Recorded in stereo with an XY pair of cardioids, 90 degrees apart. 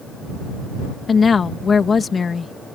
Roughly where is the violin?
No violin in this recording.